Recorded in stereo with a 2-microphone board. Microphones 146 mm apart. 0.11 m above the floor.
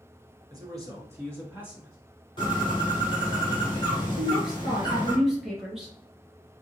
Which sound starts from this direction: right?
A man speaking, at 0.5 s.